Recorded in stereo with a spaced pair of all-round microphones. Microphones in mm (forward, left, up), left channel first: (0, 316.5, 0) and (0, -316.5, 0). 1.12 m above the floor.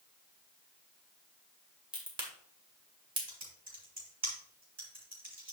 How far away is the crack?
About 1.9 m.